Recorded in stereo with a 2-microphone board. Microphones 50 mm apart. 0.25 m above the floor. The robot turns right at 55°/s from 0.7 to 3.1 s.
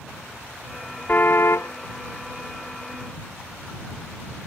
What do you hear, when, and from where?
1.1 s a car horn: 35° left; by 1.7 s 65° left